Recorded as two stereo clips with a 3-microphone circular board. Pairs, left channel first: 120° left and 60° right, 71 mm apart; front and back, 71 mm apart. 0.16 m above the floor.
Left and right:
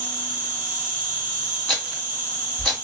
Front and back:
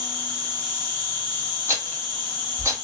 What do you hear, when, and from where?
0.0 s an insect: 85° right, 1.9 m
1.7 s a rattle: 155° right, 1.4 m